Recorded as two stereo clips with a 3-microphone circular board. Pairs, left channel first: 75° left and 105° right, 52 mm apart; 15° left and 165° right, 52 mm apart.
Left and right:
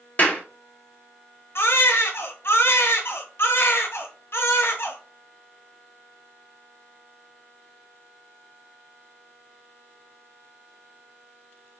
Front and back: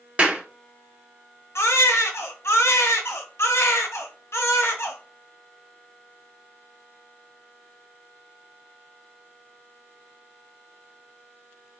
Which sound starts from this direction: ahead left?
A baby crying, at 1.6 s.